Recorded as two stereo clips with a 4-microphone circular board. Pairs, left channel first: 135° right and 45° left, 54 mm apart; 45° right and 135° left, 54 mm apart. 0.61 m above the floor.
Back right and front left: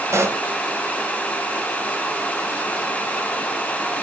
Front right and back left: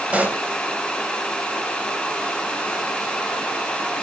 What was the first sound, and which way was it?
A pop, 70° left.